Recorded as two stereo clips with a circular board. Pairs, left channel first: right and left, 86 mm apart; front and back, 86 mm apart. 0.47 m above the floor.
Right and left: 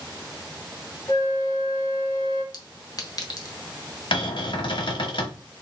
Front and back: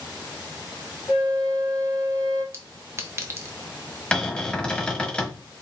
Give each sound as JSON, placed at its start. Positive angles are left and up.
{"t": 1.1, "sound": "a flute", "azimuth_deg": -55, "distance_m": 2.5}
{"t": 2.5, "sound": "a clink", "azimuth_deg": -125, "distance_m": 0.9}
{"t": 4.1, "sound": "a cupboard door", "azimuth_deg": -80, "distance_m": 1.0}